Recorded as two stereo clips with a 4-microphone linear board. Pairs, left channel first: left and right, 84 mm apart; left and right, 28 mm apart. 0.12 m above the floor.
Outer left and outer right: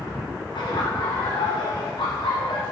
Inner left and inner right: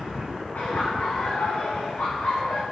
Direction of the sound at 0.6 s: 60° left (ahead or behind).